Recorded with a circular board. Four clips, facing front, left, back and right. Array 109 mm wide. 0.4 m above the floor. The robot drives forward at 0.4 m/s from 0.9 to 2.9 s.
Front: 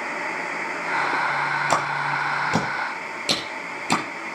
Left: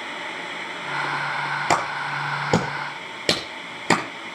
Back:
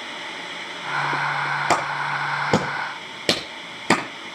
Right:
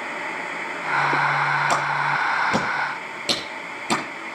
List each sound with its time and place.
1.7 s a clap: 140° left, 6.5 m